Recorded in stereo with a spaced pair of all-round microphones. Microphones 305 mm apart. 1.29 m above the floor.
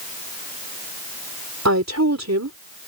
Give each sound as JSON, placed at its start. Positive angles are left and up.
{"t": 1.6, "sound": "a woman speaking", "side_deg": -60}